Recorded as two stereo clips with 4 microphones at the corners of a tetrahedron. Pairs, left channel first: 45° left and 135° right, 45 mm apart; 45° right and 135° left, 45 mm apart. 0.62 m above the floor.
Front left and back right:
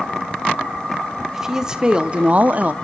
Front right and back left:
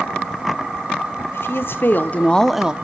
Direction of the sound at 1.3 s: 55° right.